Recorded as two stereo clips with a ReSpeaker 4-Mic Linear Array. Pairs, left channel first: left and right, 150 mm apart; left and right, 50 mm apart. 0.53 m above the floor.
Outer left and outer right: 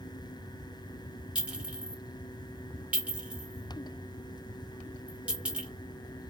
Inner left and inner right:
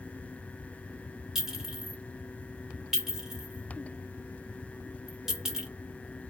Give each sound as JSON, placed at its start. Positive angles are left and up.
{"t": 1.4, "sound": "a clink", "side_deg": -10, "distance_m": 1.4}